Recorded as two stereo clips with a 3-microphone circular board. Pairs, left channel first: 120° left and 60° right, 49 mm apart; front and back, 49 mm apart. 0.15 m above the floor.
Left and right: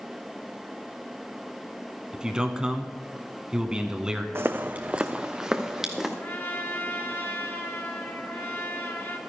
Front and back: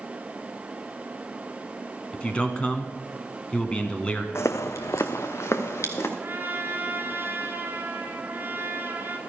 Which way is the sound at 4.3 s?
25° right.